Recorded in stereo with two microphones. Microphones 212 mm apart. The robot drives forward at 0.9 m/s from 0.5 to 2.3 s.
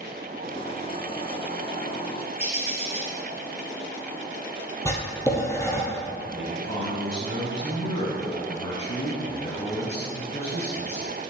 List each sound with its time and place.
2.4 s a bird: 30° left (ahead or behind), 1.6 m
4.8 s writing: 15° left (ahead or behind), 2.0 m
6.3 s a man speaking: 30° left (ahead or behind), 1.1 m